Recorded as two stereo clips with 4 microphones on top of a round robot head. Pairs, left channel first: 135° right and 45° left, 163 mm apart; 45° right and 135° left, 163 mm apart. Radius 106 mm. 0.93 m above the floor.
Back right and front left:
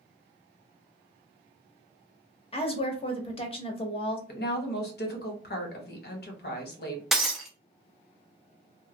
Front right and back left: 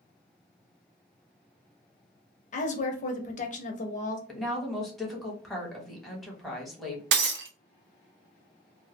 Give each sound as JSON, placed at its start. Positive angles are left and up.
{"t": 2.5, "sound": "a woman speaking", "azimuth_deg": -85, "distance_m": 0.8}
{"t": 4.3, "sound": "a woman speaking", "azimuth_deg": -130, "distance_m": 1.1}
{"t": 7.1, "sound": "breaking glass", "azimuth_deg": 130, "distance_m": 0.6}